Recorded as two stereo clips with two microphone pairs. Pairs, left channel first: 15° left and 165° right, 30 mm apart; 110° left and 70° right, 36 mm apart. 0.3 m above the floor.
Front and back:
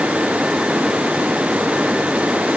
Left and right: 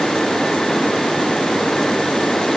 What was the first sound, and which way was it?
Only background noise.